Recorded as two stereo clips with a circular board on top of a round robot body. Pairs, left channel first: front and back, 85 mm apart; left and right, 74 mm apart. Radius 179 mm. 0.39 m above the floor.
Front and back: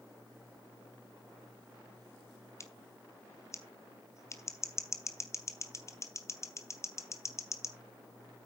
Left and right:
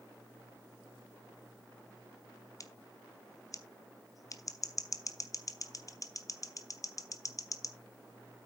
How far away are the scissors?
About 1.6 m.